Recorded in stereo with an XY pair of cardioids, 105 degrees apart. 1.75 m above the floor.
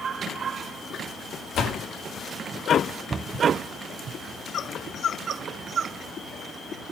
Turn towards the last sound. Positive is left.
turn(degrees=-35)